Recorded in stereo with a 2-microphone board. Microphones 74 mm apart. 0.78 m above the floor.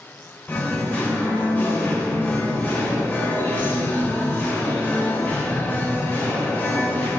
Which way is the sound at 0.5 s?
20° left (ahead or behind).